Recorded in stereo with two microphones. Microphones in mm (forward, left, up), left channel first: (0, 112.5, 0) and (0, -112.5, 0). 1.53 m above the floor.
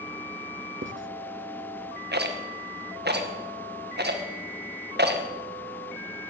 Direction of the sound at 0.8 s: 60° right (ahead or behind).